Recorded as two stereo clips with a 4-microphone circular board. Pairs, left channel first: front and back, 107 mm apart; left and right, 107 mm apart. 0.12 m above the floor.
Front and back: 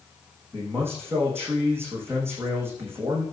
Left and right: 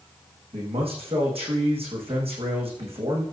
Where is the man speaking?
110° right, 5.5 m.